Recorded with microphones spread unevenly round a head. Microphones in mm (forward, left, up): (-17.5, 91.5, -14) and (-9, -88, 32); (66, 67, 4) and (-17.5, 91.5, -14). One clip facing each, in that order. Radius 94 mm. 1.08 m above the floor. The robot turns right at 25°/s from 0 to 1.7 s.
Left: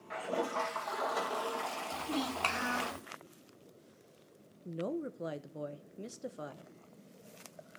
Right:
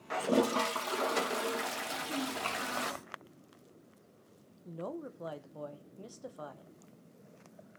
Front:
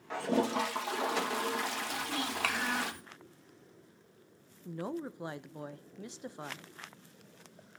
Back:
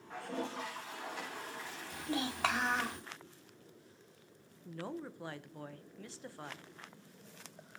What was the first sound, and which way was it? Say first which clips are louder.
A toilet flushing: right 7 dB, front 10 dB; 50° right.